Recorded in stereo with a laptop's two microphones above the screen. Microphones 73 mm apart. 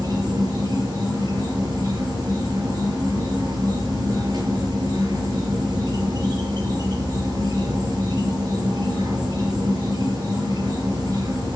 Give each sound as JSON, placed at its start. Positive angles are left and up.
{"t": 0.0, "sound": "an insect", "side_deg": -70, "distance_m": 5.5}